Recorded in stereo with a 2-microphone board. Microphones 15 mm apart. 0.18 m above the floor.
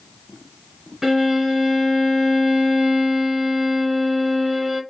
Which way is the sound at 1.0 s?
35° right (ahead or behind).